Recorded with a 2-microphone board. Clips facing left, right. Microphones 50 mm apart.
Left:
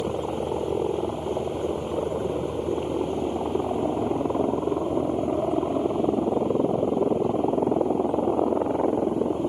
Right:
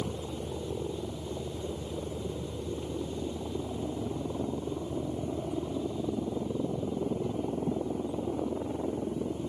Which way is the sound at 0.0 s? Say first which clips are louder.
Left 9 dB; 55° left (ahead or behind).